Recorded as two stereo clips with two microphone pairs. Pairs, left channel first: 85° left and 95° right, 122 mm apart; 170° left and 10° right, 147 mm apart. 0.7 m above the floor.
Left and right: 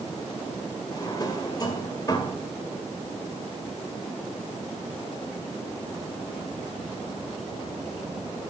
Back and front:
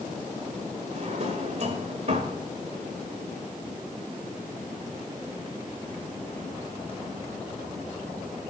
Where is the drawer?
30° left, 1.8 m.